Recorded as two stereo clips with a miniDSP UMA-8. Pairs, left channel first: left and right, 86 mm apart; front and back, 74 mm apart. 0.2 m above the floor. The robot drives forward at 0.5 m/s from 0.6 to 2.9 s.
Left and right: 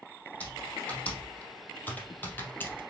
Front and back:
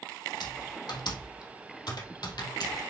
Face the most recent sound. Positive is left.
turn(degrees=25)